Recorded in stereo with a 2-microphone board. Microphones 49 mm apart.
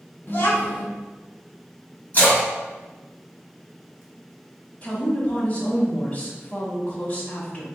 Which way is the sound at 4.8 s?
35° left (ahead or behind).